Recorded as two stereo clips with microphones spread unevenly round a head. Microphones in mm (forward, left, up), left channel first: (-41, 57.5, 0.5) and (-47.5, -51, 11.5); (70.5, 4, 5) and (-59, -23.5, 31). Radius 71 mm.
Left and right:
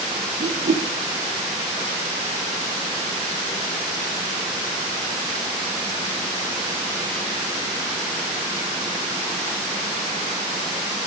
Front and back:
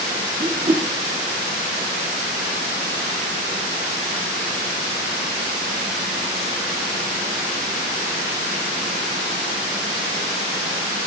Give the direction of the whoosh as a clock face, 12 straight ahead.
4 o'clock.